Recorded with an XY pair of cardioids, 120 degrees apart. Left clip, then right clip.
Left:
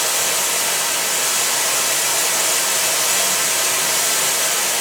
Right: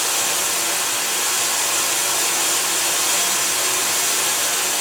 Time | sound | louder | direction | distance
0.0 | running water | left 1 dB | 55° left | 1.4 m